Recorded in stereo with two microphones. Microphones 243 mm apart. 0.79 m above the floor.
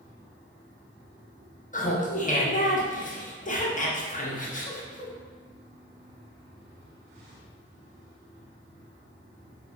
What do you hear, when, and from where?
1.7 s laughter: 30° left (ahead or behind), 0.6 m